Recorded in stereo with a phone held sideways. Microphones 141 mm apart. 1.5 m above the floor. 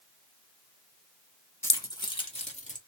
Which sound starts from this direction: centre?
Keys jangling, at 1.6 s.